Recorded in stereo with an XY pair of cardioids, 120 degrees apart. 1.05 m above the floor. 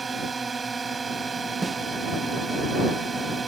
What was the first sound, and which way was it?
A drone, 25° right.